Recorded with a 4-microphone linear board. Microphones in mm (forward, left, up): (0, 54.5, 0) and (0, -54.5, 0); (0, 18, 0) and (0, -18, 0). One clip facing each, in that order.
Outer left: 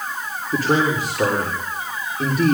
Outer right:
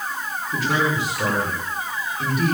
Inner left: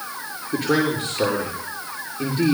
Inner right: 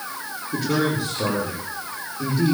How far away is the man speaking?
About 7 m.